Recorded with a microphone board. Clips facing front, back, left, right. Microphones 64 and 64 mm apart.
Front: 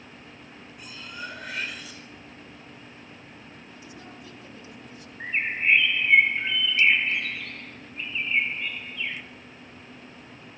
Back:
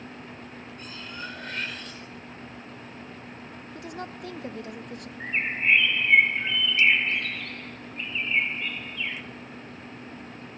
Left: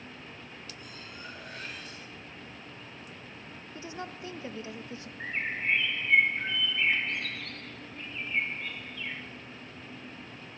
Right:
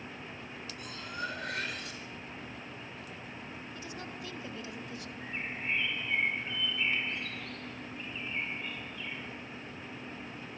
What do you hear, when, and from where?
0.8 s cutlery clinking: 85° right, 4 m
3.8 s a woman speaking: 150° left, 1.4 m
5.2 s a bird: 85° left, 2 m